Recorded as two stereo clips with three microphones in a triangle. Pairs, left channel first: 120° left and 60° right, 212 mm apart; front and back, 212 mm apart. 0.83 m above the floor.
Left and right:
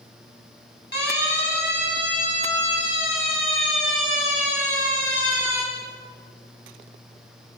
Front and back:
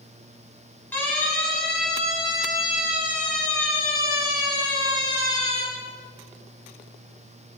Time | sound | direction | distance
0.9 | a siren | 80° left | 10 m